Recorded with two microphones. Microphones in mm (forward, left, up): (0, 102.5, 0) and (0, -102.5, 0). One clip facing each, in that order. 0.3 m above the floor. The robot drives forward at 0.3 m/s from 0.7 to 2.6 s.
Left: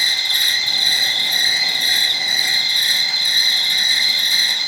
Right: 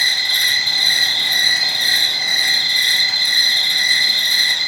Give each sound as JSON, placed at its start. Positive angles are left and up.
{"t": 0.0, "sound": "an insect", "side_deg": -75, "distance_m": 2.0}